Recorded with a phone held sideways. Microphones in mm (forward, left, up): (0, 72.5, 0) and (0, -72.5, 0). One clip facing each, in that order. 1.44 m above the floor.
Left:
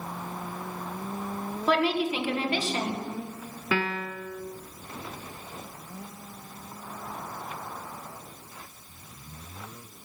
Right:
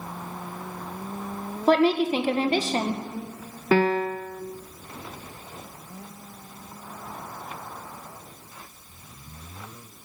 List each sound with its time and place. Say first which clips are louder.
1.7 s a woman speaking: right 6 dB; 45° right (ahead or behind), 1.4 m
3.7 s a piano: right 9 dB; 45° right (ahead or behind), 0.6 m